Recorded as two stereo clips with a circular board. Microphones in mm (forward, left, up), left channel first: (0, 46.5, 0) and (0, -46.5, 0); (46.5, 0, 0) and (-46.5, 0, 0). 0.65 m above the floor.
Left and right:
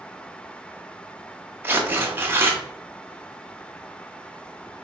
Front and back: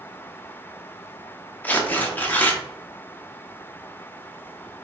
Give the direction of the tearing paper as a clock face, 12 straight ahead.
2 o'clock.